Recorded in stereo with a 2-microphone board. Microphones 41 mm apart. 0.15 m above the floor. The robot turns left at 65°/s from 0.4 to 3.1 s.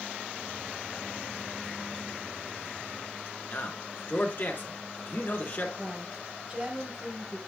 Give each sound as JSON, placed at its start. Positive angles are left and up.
{"t": 3.5, "sound": "a man speaking", "side_deg": 45, "distance_m": 1.6}
{"t": 5.8, "sound": "a woman speaking", "side_deg": -20, "distance_m": 2.5}